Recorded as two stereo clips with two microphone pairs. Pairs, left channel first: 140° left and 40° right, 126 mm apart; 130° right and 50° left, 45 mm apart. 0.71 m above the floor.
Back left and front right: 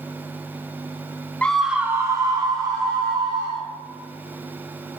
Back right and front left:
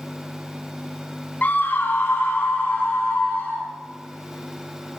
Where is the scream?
145° right, 0.8 m; by 3.7 s 80° right, 3 m.